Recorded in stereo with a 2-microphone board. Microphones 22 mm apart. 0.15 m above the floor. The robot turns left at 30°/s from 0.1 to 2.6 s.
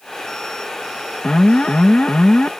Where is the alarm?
135° left; by 2.5 s 95° left.